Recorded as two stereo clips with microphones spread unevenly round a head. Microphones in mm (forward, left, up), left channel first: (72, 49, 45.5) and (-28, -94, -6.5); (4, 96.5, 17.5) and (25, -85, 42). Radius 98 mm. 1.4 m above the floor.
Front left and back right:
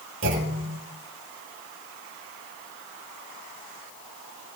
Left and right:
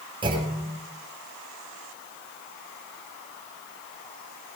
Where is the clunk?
150° right, 5 m.